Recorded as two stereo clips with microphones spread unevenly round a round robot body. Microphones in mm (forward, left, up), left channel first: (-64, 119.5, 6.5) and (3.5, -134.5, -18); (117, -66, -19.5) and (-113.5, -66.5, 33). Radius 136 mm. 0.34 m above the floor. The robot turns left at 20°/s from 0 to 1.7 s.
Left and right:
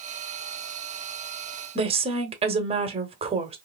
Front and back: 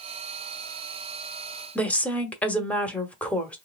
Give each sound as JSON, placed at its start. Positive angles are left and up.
{"t": 1.8, "sound": "a woman speaking", "azimuth_deg": -50, "distance_m": 0.9}